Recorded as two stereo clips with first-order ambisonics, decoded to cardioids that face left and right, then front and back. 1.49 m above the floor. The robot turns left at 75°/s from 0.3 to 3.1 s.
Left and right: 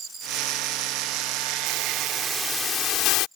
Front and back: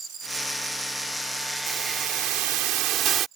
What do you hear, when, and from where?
1.7 s a hiss: 125° right; by 3.3 s 125° left